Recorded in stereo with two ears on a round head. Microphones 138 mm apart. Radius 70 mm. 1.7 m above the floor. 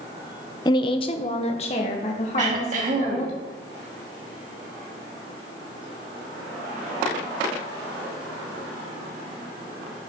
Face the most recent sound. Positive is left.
turn(degrees=-50)  # may be behind; listen again after turning